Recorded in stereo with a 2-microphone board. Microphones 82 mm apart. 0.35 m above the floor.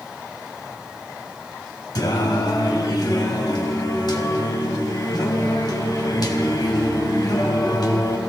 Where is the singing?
60° left (ahead or behind), 1.6 m.